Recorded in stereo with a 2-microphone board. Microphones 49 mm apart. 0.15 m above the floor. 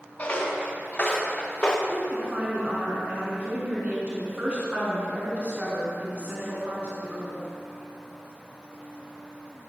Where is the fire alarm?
I don't hear a fire alarm.